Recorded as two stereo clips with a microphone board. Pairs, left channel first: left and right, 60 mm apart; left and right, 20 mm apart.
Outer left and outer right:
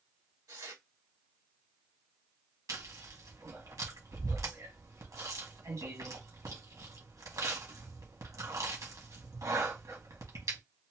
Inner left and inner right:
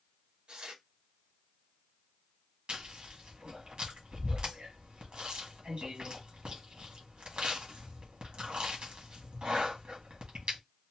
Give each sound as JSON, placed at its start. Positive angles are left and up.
{"t": 0.5, "sound": "tearing paper", "side_deg": -70, "distance_m": 1.6}
{"t": 2.7, "sound": "chewing", "side_deg": -65, "distance_m": 1.6}